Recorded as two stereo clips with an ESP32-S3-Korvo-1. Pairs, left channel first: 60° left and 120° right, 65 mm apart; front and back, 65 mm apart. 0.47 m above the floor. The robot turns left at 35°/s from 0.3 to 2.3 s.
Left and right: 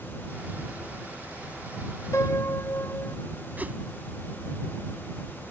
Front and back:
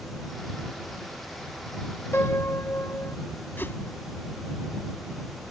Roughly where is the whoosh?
Ahead right.